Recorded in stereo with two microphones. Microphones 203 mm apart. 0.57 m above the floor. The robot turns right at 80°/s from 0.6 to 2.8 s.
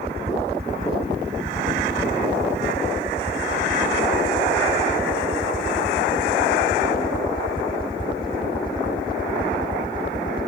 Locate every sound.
0.0 s a helicopter: 30° right (ahead or behind); by 10.5 s 20° left (ahead or behind)